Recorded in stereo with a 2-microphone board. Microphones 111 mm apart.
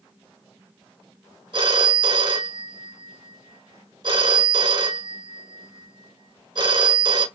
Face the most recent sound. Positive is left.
turn(degrees=-45)  # may be behind; listen again after turning